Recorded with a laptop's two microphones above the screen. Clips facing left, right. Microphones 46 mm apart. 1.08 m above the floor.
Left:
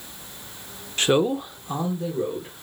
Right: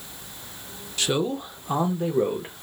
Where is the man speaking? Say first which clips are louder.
Left 5 dB; 35° left (ahead or behind), 0.8 m; by 2.5 s 50° right (ahead or behind), 1.4 m.